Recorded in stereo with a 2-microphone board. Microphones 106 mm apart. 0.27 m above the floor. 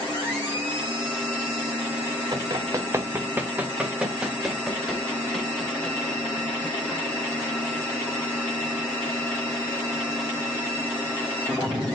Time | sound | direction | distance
2.3 | running footsteps | 40° right (ahead or behind) | 1.1 m